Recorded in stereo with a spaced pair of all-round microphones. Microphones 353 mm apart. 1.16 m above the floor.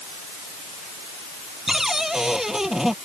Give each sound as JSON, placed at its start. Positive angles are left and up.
{"t": 1.7, "sound": "a cupboard door", "side_deg": 0}